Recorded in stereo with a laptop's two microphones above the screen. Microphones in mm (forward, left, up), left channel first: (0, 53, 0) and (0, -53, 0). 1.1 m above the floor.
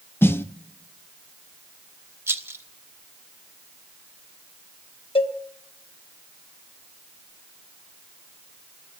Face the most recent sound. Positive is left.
turn(degrees=60)  # may be behind; listen again after turning